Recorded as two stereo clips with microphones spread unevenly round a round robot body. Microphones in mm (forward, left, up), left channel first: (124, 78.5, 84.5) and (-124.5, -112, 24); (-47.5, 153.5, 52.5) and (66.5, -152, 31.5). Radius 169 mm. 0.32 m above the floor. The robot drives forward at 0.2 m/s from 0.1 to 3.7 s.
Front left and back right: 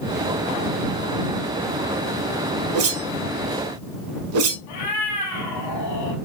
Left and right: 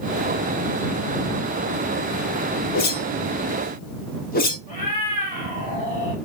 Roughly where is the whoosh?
Behind.